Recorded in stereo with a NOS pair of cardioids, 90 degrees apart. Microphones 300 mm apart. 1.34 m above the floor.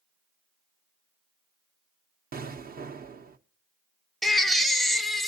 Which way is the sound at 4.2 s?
Straight ahead.